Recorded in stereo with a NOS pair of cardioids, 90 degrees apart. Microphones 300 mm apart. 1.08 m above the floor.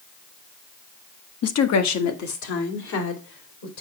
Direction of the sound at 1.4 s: 55° left.